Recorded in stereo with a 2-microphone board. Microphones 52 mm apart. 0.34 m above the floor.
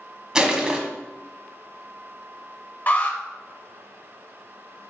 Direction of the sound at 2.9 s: 40° left (ahead or behind).